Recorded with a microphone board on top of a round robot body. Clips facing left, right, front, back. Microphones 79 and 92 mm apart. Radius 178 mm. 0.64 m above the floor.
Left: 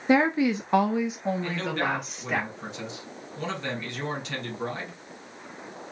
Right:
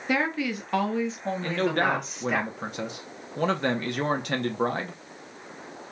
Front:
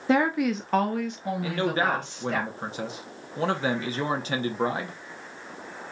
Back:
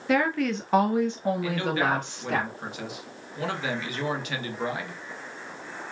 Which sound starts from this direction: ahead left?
A woman speaking, at 0.1 s.